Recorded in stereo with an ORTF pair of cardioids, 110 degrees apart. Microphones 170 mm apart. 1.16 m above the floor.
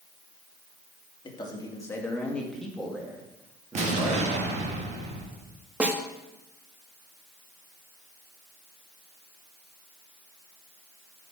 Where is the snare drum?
10° right, 1.0 m.